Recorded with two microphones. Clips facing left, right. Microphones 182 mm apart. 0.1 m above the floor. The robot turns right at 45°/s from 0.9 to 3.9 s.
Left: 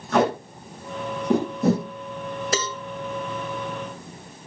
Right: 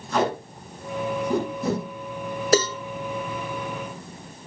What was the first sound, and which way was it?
Tape being pulled, 65° left (ahead or behind).